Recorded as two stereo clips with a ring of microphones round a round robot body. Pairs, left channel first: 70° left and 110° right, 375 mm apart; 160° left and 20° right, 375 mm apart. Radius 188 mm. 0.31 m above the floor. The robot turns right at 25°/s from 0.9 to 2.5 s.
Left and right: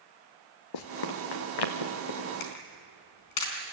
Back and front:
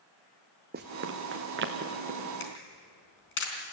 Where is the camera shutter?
100° left, 4 m.